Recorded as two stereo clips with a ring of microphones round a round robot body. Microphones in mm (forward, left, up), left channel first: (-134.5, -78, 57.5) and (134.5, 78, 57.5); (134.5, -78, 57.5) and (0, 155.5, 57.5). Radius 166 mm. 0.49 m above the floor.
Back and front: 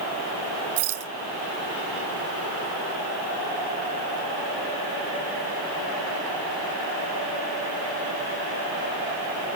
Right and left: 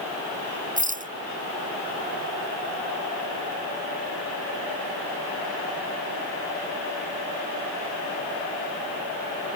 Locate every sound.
0.8 s a rattle: 60° left